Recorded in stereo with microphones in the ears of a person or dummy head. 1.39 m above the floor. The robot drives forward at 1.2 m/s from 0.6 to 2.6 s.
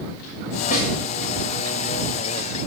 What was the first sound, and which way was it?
A snare drum, 45° left (ahead or behind).